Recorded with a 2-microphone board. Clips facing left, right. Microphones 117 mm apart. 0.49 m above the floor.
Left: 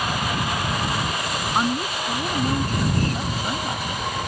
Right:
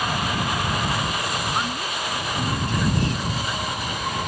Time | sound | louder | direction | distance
1.6 | a woman speaking | left 4 dB | 30° left (ahead or behind) | ?